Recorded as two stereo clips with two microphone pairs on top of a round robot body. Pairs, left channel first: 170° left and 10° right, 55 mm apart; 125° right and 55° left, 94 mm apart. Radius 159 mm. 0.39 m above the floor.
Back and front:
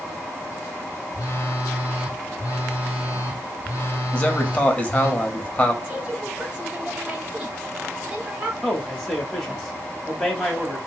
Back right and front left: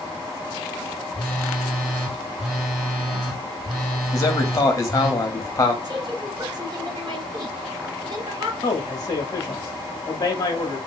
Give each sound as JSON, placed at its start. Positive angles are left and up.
{"t": 1.1, "sound": "a phone buzzing", "azimuth_deg": 145, "distance_m": 1.1}
{"t": 4.1, "sound": "a man speaking", "azimuth_deg": -115, "distance_m": 1.2}
{"t": 5.8, "sound": "a woman speaking", "azimuth_deg": 40, "distance_m": 1.9}
{"t": 8.6, "sound": "a man speaking", "azimuth_deg": -95, "distance_m": 1.1}